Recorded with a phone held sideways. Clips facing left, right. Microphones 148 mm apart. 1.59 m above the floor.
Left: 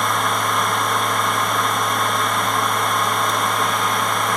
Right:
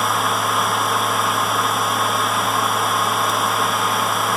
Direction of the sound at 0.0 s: Centre (ahead or behind).